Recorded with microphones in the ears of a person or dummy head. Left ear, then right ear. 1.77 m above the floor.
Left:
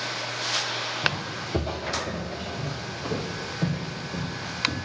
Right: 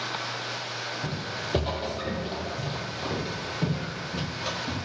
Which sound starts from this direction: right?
Footsteps, at 1.0 s.